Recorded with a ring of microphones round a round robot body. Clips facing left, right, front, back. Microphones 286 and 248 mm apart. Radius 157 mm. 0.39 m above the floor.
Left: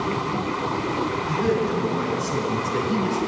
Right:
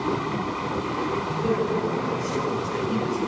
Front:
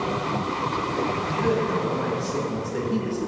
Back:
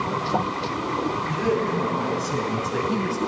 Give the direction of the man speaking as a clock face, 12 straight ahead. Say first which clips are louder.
Left 3 dB, back 1 dB; 7 o'clock.